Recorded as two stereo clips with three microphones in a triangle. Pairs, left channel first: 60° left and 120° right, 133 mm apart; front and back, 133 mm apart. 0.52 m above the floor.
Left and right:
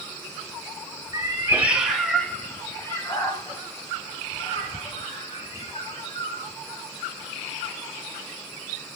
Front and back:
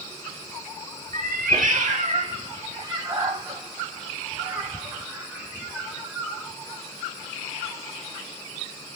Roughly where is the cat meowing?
Behind.